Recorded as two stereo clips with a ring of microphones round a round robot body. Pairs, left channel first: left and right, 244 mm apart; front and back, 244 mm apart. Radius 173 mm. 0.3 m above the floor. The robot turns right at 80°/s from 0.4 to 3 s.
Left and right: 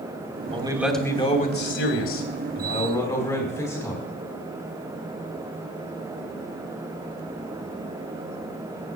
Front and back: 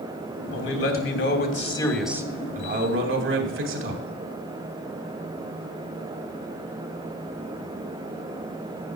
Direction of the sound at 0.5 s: 30° right.